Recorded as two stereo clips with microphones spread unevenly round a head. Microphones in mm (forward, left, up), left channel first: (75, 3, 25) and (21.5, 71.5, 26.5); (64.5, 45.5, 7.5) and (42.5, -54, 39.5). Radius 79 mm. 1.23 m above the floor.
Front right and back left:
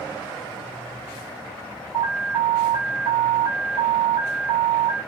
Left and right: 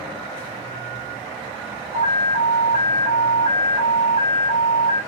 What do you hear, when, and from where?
1.9 s an alarm: 155° right, 1.3 m